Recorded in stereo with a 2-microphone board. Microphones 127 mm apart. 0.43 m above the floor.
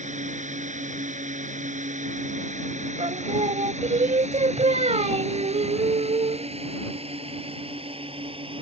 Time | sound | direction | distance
0.0 | a drone | 75° right (ahead or behind) | ?
3.0 | singing | 65° right (ahead or behind) | ?